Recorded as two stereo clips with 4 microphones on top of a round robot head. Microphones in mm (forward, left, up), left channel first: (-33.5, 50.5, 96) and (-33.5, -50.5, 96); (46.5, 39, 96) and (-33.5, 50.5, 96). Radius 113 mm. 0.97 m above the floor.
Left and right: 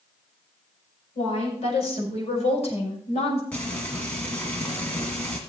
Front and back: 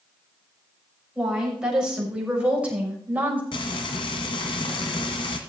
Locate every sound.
1.1 s a woman speaking: 90° left, 6.5 m; by 3.4 s 105° left, 5.5 m
3.5 s frying: 10° left, 1.7 m